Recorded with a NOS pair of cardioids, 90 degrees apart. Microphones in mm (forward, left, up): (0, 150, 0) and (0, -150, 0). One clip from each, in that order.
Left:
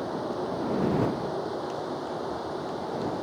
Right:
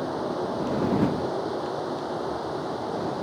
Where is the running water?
15° right.